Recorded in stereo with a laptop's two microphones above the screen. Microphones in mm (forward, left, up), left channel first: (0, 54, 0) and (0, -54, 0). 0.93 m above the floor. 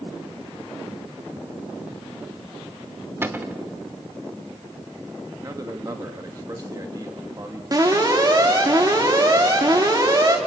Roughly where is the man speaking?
Right.